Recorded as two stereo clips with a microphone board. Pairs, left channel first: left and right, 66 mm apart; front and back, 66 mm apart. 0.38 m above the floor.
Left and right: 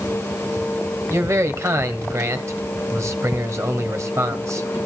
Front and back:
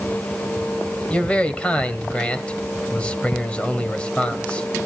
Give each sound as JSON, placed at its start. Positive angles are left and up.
{"t": 1.1, "sound": "a man speaking", "azimuth_deg": -65, "distance_m": 2.0}